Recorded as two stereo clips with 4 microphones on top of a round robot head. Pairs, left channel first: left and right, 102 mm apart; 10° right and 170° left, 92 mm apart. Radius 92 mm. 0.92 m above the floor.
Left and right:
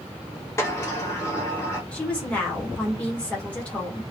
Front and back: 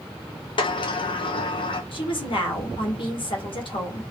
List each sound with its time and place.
0.6 s a sliding door: 20° left, 0.7 m
1.9 s a woman speaking: 10° left, 1.3 m